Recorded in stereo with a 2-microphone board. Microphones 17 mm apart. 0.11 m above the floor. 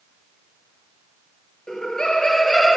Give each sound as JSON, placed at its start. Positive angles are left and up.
{"t": 1.7, "sound": "laughter", "side_deg": 45, "distance_m": 2.0}